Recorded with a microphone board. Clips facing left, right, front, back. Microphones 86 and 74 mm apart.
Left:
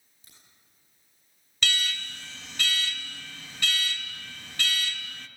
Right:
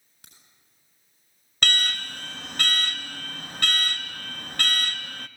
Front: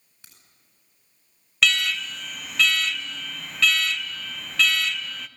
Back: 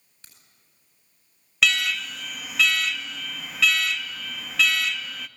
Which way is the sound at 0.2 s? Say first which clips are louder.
Right 3 dB, even; 75° right.